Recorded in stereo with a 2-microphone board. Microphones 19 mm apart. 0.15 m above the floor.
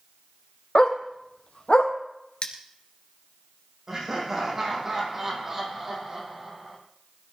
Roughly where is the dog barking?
Left.